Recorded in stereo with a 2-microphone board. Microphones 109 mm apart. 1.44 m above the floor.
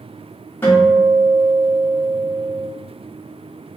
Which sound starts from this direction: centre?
A guitar, at 0.6 s.